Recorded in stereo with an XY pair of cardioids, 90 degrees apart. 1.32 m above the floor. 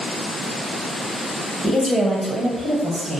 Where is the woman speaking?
20° left, 0.7 m; by 3.2 s 70° right, 1.1 m.